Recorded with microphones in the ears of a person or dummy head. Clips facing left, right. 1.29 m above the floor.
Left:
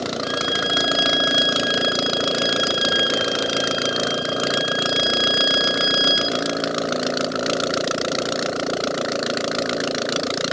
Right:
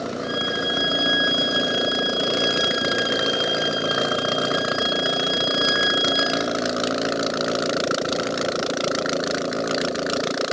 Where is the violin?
Centre (ahead or behind), 9.5 m.